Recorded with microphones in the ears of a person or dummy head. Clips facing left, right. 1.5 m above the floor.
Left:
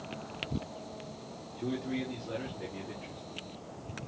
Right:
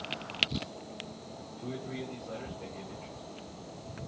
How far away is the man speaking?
About 4 m.